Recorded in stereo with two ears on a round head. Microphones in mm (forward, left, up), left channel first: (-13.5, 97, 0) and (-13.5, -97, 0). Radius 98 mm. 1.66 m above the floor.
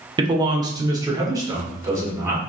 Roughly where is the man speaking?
Right.